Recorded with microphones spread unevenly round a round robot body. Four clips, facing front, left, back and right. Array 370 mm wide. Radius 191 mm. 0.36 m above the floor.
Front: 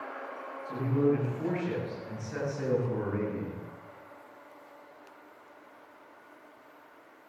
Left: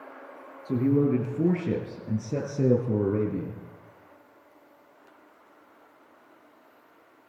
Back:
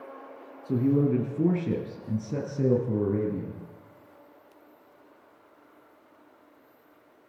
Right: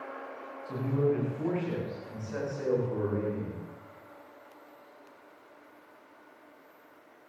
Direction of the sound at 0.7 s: 145° left.